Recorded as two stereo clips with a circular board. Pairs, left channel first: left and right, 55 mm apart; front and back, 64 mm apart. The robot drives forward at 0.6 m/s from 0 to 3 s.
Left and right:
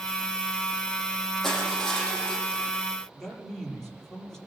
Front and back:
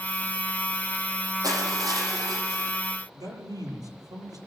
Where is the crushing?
175° left, 7 m.